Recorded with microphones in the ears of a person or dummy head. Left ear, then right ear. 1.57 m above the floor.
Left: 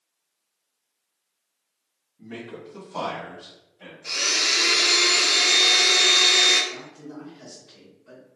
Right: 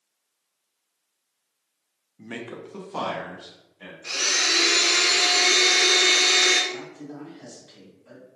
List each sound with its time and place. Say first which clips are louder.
2.2 s a man speaking: right 2 dB; 80° right, 0.6 m; by 3.9 s 15° right (ahead or behind), 1.4 m
4.0 s a blender: even; 25° right (ahead or behind), 1.2 m
6.7 s a man speaking: right 2 dB; 50° right (ahead or behind), 1.8 m